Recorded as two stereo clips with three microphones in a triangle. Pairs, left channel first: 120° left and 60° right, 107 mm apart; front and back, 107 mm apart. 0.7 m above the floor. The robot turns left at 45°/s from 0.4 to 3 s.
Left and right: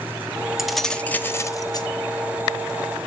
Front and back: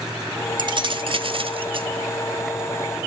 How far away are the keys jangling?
About 0.8 m.